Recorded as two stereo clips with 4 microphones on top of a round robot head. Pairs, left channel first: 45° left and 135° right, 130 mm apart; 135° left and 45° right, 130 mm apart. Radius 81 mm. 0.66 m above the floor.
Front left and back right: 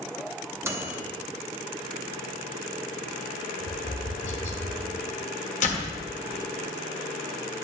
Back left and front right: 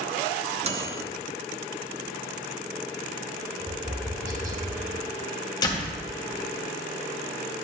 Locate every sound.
0.6 s a microwave: 65° right, 0.8 m
3.6 s tapping: 15° left, 1.2 m
5.6 s a door slam: 75° left, 1.4 m